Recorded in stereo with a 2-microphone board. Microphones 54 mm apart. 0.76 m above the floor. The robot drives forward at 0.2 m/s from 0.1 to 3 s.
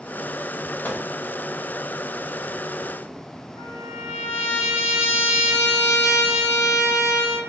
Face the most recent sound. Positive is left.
turn(degrees=-15)  # may be behind; listen again after turning